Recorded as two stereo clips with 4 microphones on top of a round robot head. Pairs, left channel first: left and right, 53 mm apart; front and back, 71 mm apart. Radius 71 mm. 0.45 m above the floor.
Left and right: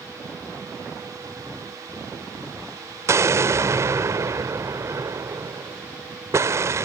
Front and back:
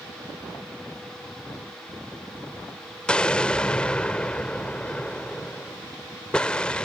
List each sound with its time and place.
3.1 s an explosion: 75° right